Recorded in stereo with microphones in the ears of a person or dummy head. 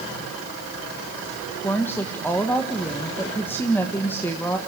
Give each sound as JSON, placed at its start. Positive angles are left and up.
{"t": 1.6, "sound": "a woman speaking", "side_deg": 15, "distance_m": 1.6}